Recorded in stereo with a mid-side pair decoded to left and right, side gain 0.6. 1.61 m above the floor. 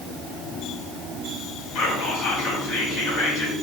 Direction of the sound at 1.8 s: 60° left.